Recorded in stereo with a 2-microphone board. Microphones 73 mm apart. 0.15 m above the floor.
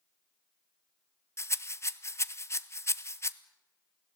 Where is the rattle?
40° left (ahead or behind), 0.7 m.